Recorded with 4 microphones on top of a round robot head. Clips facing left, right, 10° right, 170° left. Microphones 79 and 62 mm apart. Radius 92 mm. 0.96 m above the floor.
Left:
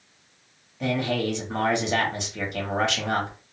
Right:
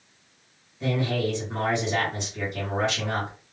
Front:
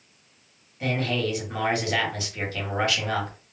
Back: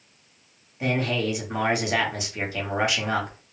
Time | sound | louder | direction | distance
0.8 | a man speaking | left 1 dB, back 1 dB | 100° left | 1.5 m